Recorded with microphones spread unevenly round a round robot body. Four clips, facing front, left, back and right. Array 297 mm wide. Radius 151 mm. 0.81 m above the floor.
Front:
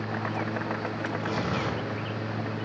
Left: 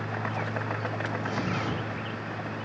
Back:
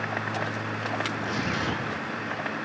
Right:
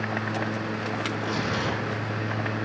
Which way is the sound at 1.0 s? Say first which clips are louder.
Right 2 dB, even; 10° right.